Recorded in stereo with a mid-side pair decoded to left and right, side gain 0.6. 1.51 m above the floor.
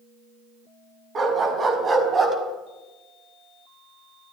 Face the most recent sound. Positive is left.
turn(degrees=-25)